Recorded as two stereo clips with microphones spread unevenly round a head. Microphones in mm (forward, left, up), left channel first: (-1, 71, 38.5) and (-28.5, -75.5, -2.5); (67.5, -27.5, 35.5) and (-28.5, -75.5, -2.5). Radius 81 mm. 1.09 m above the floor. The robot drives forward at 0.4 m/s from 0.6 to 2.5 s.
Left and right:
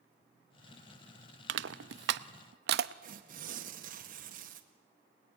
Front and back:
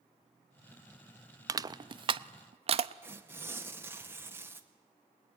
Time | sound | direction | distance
1.5 | crushing | 90° right | 0.7 m
3.0 | tearing paper | 95° right | 2.0 m